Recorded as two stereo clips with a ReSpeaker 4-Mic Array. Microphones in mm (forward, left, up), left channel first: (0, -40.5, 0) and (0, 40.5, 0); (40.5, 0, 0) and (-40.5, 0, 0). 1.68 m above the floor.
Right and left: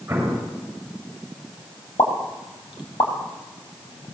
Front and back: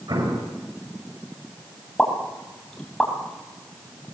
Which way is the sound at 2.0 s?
85° right.